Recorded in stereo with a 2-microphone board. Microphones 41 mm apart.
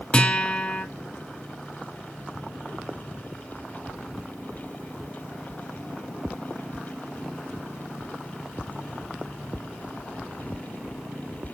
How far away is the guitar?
About 1.2 m.